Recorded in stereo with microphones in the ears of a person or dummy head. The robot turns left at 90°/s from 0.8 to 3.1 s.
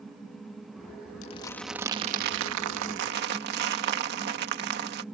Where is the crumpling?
40° left; by 5.0 s 130° right.